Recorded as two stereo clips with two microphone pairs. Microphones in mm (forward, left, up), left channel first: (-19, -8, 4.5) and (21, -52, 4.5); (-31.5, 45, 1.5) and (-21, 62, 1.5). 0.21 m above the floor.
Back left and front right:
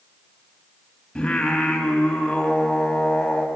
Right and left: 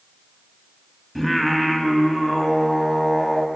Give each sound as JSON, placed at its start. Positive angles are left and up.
{"t": 1.1, "sound": "singing", "azimuth_deg": -175, "distance_m": 1.0}